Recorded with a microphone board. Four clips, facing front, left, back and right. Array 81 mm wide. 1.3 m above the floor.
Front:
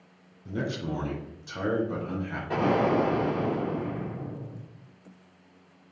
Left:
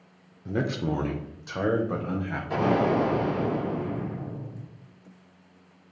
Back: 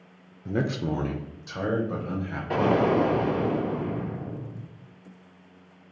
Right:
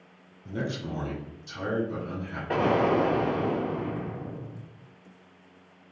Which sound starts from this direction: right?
An explosion, at 2.5 s.